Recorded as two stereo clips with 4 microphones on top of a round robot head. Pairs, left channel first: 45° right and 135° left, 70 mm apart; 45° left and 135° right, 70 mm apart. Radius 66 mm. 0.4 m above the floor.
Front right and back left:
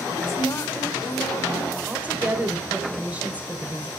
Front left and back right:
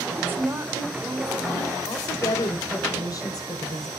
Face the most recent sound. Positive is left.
turn(degrees=70)